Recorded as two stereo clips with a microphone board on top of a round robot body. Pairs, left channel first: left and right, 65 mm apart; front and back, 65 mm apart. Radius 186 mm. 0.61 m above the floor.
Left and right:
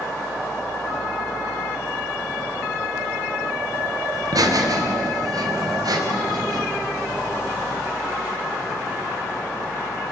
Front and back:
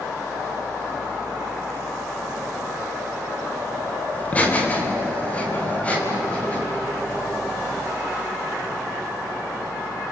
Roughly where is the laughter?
Ahead right.